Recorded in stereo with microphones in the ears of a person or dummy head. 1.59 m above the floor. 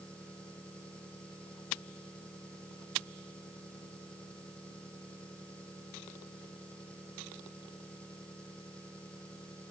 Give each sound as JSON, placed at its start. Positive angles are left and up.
{"t": 0.0, "sound": "an engine running", "side_deg": 5}